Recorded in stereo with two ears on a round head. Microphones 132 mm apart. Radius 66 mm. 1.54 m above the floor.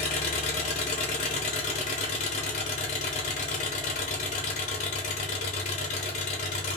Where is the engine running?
50° left (ahead or behind), 1.2 m.